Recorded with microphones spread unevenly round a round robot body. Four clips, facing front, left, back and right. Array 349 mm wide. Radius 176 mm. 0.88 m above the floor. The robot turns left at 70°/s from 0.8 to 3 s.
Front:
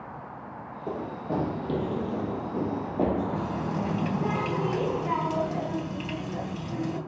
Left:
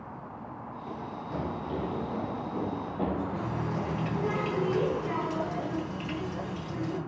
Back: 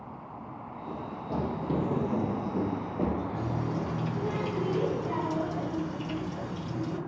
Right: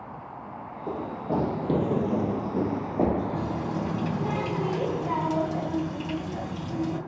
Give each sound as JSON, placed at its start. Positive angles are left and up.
{"t": 0.9, "sound": "running footsteps", "azimuth_deg": -35, "distance_m": 2.5}
{"t": 3.3, "sound": "a running tap", "azimuth_deg": -50, "distance_m": 4.0}